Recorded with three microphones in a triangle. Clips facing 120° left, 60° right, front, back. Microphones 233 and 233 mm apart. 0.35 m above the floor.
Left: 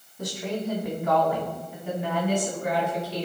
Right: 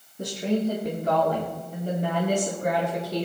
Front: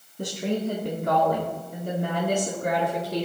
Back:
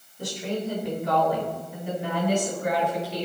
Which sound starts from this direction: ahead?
A woman speaking, at 0.2 s.